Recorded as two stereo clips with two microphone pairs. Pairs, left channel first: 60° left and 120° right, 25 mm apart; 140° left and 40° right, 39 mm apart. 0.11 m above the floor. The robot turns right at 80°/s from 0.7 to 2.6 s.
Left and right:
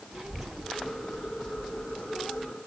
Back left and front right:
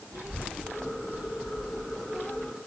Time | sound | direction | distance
0.1 | a child speaking | 45° right | 4 m